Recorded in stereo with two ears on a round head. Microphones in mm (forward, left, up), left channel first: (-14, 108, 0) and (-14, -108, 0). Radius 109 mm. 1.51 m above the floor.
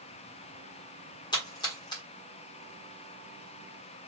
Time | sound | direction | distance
1.3 | a splash | 20° left (ahead or behind) | 1.7 m